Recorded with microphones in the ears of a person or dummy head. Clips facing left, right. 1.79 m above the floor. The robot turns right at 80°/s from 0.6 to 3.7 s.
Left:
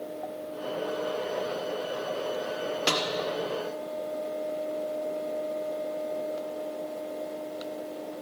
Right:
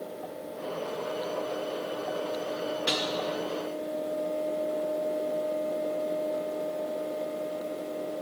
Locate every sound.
2.9 s a snare drum: 60° left (ahead or behind), 1.3 m; by 3.0 s 45° left (ahead or behind), 1.3 m